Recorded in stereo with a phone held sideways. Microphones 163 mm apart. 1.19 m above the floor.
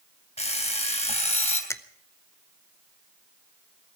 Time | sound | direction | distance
0.4 | an alarm clock | 40° left (ahead or behind) | 2.5 m
1.7 | a finger snap | 15° left (ahead or behind) | 0.8 m